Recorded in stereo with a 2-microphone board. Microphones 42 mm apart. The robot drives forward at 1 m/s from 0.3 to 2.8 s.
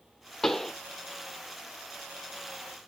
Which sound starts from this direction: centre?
A pop, at 0.4 s.